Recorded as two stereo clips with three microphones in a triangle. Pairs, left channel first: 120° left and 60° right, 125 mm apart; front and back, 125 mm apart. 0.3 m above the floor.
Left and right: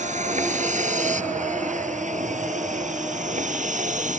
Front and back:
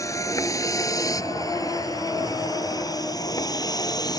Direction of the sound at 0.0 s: 65° right.